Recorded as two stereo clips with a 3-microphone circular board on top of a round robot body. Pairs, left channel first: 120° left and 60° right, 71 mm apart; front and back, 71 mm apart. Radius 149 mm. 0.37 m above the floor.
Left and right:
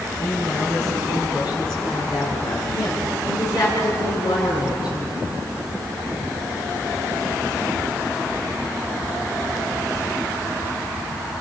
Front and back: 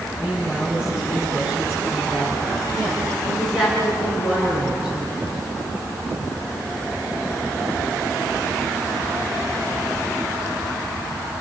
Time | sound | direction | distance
0.2 | a woman speaking | 105° left | 8 m